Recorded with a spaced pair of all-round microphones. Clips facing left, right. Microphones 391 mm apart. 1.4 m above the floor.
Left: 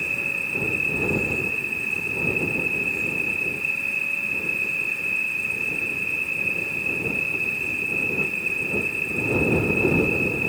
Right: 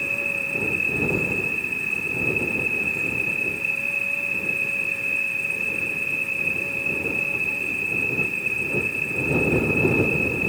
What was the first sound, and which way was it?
An insect, 55° right (ahead or behind).